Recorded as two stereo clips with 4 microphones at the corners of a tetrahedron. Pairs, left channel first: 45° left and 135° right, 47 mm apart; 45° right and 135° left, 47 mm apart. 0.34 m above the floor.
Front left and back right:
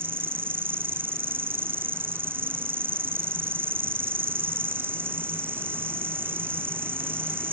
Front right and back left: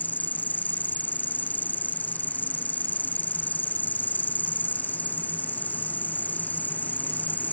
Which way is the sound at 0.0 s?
95° right.